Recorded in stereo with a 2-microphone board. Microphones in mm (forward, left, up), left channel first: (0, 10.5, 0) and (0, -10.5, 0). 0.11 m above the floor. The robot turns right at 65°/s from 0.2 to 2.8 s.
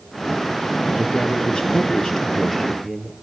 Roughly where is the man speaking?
Ahead left.